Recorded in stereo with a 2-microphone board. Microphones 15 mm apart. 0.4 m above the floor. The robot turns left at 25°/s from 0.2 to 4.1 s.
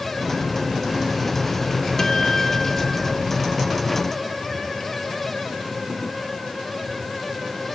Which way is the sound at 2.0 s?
25° left (ahead or behind).